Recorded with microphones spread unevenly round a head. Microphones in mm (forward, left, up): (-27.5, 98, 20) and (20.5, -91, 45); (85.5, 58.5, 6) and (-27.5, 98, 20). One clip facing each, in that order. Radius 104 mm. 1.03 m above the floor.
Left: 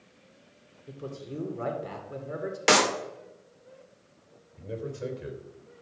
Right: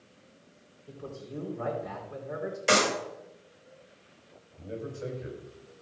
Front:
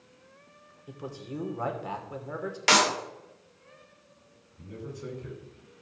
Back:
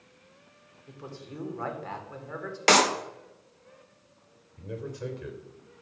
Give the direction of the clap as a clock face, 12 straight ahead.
8 o'clock.